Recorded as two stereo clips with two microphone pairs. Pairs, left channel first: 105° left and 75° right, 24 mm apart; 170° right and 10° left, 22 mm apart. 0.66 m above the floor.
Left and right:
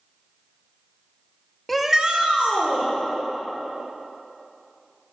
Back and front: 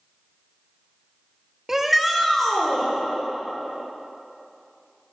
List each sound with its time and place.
1.7 s a shout: 30° left, 0.5 m; by 2.9 s 95° right, 1.4 m